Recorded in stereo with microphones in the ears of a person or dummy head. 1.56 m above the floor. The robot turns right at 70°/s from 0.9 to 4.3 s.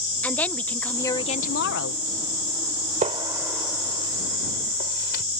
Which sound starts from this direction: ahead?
A woman speaking, at 0.2 s.